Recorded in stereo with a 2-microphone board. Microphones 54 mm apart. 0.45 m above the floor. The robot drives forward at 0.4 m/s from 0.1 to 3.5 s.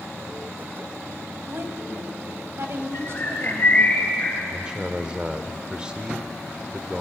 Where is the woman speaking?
50° right (ahead or behind), 2.5 m; by 3.9 s 60° right (ahead or behind), 2.0 m.